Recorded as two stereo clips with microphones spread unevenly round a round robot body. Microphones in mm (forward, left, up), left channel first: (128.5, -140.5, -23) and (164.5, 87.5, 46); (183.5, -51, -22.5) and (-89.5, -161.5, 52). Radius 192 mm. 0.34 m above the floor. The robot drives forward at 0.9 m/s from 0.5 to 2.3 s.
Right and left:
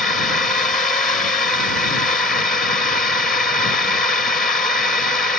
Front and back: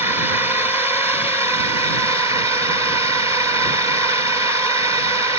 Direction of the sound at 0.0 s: 50° right.